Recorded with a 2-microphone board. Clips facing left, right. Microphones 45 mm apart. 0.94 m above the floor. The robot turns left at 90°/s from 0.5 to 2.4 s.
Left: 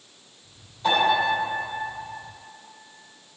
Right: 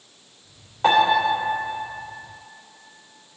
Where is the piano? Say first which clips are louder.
Right 4 dB; 110° right, 2.5 m; by 1.2 s 145° right, 2.5 m.